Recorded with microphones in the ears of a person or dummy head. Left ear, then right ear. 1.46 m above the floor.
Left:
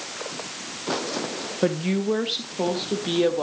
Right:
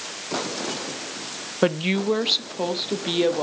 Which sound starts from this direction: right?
A woman speaking, at 1.6 s.